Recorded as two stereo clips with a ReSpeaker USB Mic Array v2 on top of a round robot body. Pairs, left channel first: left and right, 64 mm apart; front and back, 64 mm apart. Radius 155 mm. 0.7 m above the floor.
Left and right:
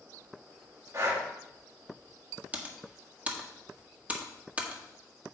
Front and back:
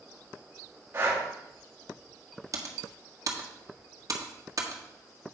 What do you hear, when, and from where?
0.9 s breathing: 130° right, 2.5 m
2.5 s typing on a keyboard: 155° right, 1.6 m